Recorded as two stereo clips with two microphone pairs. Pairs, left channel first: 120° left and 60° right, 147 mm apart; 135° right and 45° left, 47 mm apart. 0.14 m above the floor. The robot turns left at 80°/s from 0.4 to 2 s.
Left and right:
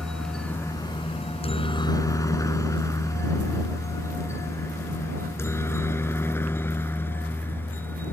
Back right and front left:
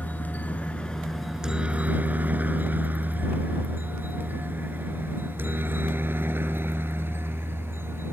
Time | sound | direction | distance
0.0 | a helicopter | 155° right | ?